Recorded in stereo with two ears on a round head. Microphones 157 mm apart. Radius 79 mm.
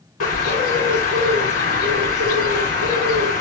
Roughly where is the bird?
Left.